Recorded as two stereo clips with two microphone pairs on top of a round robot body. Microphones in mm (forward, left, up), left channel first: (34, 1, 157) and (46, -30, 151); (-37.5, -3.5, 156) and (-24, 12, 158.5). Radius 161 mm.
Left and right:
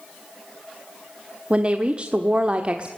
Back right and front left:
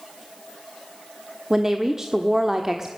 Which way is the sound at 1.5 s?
20° right.